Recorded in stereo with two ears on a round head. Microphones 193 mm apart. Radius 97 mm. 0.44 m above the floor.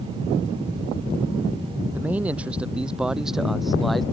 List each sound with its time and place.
1.9 s a man speaking: 10° right (ahead or behind); by 4.0 s centre (ahead or behind)